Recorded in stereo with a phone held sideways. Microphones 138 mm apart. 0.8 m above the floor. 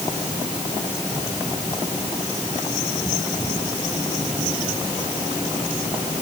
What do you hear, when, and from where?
Only background noise.